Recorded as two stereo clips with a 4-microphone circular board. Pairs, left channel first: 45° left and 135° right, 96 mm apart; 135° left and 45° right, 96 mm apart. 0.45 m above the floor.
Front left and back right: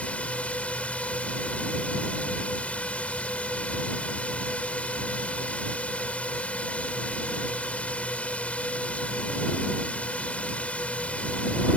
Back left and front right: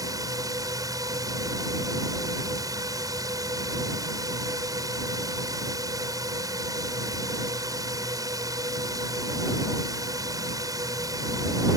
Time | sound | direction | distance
0.0 | a drone | 25° right | ?